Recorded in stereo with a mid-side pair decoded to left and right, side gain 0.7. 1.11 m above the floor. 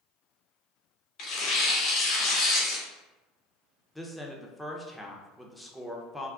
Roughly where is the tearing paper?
Ahead left.